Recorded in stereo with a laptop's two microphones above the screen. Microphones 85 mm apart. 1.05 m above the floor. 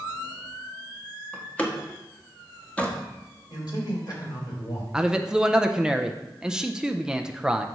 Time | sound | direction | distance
1.3 | a door slam | 15° left (ahead or behind) | 1.4 m
3.5 | a man speaking | 50° left (ahead or behind) | 3.5 m
4.9 | a man speaking | 10° right (ahead or behind) | 0.6 m